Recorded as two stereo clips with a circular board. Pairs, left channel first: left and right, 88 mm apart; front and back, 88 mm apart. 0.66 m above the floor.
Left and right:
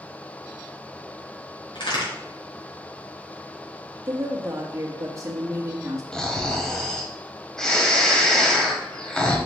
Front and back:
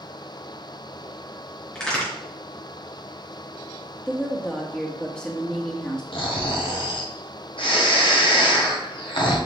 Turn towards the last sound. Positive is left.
turn(degrees=5)